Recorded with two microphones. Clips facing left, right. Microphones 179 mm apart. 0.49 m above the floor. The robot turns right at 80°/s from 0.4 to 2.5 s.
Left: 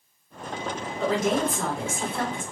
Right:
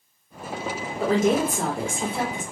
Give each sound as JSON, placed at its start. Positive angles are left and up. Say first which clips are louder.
{"t": 1.0, "sound": "a woman speaking", "louder": "right 3 dB", "azimuth_deg": -120, "distance_m": 1.6}